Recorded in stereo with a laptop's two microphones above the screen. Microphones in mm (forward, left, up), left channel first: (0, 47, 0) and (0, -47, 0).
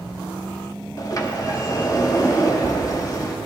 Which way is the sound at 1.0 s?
40° left (ahead or behind).